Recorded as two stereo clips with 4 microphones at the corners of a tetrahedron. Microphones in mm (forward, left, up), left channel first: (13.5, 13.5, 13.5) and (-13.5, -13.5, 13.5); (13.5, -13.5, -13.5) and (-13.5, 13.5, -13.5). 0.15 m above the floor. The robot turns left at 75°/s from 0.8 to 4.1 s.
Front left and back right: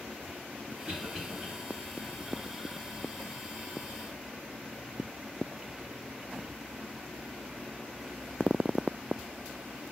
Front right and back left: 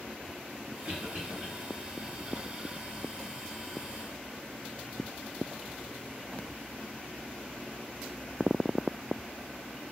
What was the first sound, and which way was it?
A cough, straight behind.